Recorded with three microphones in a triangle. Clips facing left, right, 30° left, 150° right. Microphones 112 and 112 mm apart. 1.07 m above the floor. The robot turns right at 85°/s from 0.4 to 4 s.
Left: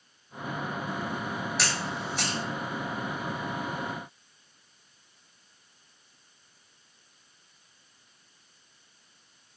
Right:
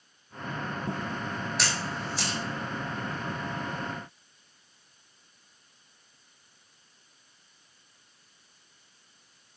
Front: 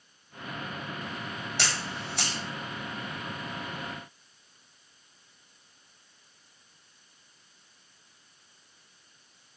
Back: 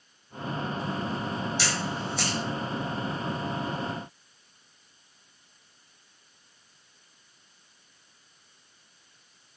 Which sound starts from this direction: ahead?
A camera shutter, at 1.6 s.